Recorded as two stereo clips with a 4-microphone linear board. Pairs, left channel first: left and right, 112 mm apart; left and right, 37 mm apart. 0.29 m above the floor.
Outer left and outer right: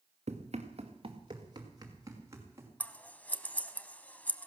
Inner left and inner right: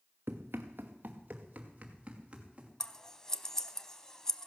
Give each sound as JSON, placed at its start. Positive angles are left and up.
{"t": 0.3, "sound": "running footsteps", "side_deg": -80, "distance_m": 1.3}
{"t": 2.8, "sound": "scissors", "side_deg": 15, "distance_m": 0.6}